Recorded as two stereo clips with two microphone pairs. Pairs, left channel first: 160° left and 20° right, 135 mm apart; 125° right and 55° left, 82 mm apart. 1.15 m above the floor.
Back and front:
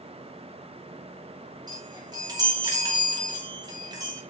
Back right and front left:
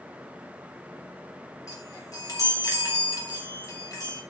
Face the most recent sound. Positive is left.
turn(degrees=-80)